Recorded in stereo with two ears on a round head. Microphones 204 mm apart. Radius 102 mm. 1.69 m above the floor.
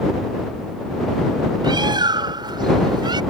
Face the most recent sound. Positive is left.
turn(degrees=-20)  # may be behind; listen again after turning